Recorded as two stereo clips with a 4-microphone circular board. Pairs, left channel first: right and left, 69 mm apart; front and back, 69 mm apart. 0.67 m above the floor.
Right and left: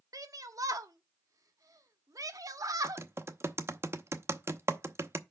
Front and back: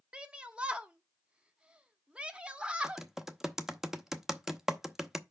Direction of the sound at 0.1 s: 110° left.